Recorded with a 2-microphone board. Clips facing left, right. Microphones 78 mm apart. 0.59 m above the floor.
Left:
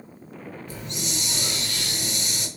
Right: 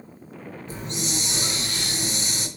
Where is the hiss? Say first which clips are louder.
Right 4 dB; 30° right (ahead or behind), 4 m.